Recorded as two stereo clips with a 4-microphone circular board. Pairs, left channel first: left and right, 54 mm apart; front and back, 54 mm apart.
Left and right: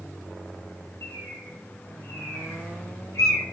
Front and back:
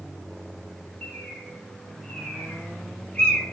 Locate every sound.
1.0 s a bird: 70° left, 0.8 m